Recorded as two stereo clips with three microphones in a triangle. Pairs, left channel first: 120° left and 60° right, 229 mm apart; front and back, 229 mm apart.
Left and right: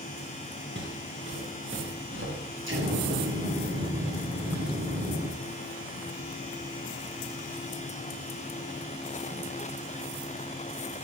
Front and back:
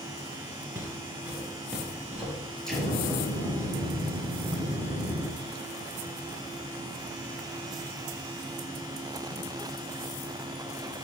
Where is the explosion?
90° right, 3.5 m.